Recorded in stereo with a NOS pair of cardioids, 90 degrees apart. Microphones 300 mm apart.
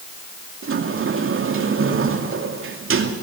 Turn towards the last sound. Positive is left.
turn(degrees=-45)